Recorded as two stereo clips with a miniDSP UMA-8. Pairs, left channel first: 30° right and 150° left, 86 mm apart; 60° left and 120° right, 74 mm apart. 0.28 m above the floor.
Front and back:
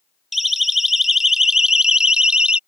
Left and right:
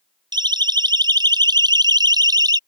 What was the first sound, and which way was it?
A siren, 120° right.